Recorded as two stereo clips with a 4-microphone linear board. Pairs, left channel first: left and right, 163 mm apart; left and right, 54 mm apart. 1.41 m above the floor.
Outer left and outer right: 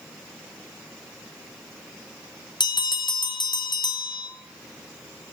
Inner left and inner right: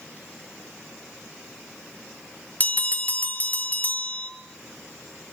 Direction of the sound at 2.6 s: 25° left (ahead or behind).